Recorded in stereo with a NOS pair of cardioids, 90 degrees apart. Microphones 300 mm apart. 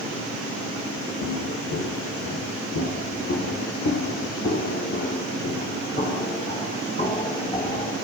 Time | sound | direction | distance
1.2 | footsteps | 65° left | 5.5 m